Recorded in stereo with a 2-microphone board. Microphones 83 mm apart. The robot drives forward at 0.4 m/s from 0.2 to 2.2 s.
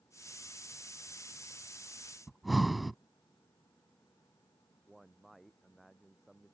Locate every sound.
2.3 s breathing: centre (ahead or behind)
4.9 s a man speaking: centre (ahead or behind)